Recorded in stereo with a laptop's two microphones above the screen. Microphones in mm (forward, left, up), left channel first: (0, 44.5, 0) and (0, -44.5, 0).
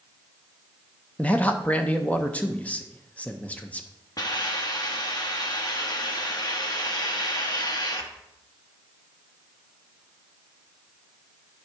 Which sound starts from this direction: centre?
A man speaking, at 1.2 s.